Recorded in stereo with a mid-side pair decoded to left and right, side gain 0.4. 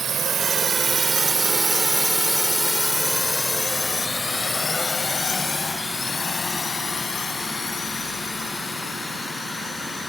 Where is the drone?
65° right; by 10.1 s 50° left.